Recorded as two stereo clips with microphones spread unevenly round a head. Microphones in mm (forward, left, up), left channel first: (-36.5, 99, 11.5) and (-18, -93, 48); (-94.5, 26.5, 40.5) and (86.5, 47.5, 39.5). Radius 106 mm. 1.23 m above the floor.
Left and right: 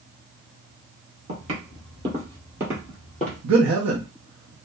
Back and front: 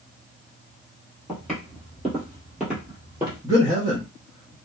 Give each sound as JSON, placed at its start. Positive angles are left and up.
{"t": 1.3, "sound": "footsteps", "azimuth_deg": -90, "distance_m": 1.6}
{"t": 3.4, "sound": "a man speaking", "azimuth_deg": -70, "distance_m": 0.7}